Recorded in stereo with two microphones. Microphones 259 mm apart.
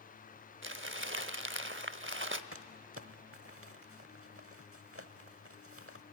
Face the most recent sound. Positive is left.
turn(degrees=-60)  # may be behind; listen again after turning